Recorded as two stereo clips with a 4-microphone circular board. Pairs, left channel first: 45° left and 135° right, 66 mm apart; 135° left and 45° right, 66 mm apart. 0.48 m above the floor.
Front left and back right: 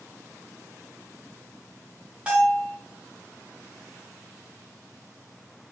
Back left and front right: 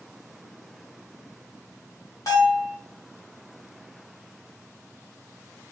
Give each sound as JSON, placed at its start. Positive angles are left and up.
{"t": 2.3, "sound": "a bell", "azimuth_deg": 155, "distance_m": 1.1}